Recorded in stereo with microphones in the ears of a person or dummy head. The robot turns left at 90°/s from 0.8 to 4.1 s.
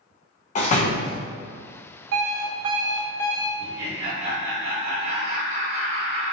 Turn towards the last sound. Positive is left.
turn(degrees=-145)